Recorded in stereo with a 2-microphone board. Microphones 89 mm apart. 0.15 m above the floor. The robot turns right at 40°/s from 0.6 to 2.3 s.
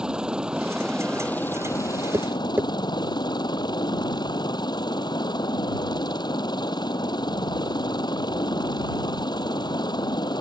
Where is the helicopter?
10° right; by 10.4 s 55° left.